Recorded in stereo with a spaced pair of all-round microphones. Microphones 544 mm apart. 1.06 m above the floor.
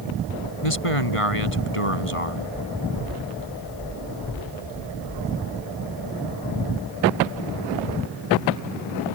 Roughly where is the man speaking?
Left.